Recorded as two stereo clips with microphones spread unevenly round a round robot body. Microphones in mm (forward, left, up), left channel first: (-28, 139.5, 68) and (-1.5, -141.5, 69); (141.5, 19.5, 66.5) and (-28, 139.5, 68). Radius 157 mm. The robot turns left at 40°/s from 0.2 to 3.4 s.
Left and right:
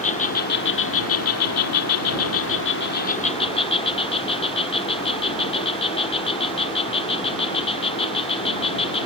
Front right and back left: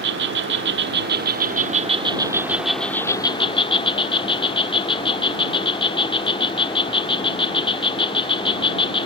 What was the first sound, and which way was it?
An insect, 155° left.